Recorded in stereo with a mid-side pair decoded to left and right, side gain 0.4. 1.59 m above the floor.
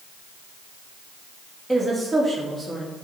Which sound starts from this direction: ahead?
A woman speaking, at 1.7 s.